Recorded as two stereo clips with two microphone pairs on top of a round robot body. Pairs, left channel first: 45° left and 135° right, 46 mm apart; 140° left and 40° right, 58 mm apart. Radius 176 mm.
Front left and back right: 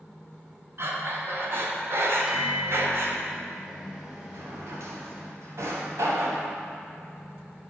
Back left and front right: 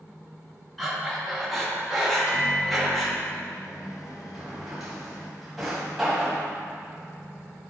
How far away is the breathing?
About 1.7 m.